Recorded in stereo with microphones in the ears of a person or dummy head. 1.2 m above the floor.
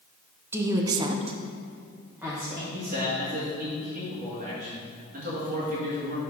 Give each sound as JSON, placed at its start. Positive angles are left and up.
{"t": 0.5, "sound": "a woman speaking", "side_deg": -10, "distance_m": 1.0}
{"t": 2.7, "sound": "a man speaking", "side_deg": -50, "distance_m": 2.5}